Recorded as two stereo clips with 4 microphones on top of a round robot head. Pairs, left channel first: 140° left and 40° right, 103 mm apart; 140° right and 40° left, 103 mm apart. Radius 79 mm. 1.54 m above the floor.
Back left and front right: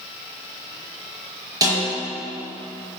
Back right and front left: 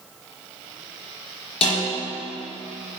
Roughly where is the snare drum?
Right.